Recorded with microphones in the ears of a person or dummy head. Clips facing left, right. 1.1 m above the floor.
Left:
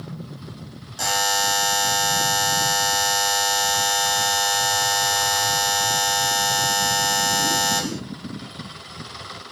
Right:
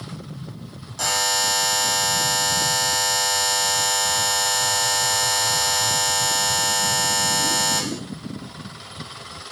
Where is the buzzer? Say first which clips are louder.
Left 2 dB; 5° left (ahead or behind), 0.8 m.